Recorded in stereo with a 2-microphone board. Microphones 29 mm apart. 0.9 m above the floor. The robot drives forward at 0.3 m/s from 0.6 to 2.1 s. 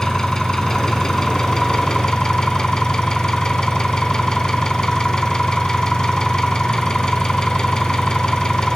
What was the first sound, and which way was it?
An engine running, 20° left (ahead or behind).